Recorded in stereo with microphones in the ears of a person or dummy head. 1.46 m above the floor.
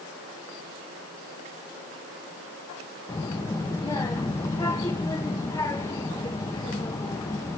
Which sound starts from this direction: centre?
A child speaking, at 3.1 s.